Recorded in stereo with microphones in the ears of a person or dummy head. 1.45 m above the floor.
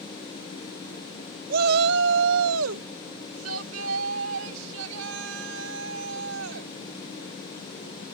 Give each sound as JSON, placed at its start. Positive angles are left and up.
{"t": 1.5, "sound": "a shout", "side_deg": -50}